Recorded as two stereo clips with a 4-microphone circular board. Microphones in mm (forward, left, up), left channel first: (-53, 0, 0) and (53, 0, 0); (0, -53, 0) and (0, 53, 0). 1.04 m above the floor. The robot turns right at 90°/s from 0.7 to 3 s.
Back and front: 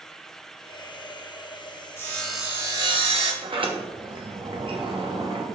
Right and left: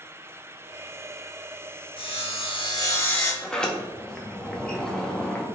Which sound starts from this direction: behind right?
Sawing, at 2.0 s.